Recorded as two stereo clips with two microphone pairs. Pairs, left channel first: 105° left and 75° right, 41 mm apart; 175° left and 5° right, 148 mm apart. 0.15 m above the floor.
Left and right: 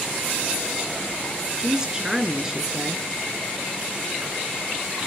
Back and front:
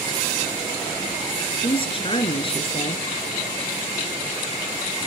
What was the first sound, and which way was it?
A woman speaking, 140° right.